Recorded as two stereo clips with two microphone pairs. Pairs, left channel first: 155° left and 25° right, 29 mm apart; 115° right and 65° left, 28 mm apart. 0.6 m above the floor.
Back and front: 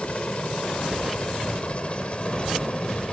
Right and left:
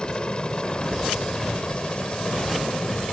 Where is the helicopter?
165° right; by 3.1 s 160° right.